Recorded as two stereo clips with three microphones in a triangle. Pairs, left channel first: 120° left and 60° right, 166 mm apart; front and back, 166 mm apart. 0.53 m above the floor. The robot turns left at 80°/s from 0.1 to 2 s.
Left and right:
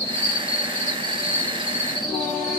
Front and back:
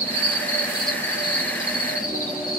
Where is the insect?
150° left, 1.1 m; by 2.6 s 5° right, 1.1 m.